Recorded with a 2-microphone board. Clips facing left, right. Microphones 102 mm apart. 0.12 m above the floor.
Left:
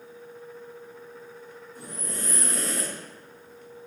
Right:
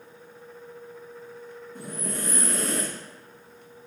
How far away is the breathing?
About 3 m.